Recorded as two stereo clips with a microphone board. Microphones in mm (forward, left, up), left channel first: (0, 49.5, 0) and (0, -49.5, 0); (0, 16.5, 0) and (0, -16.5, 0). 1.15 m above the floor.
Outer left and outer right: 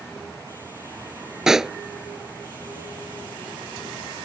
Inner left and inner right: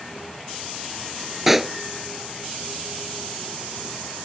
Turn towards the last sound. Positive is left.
turn(degrees=-5)  # may be behind; listen again after turning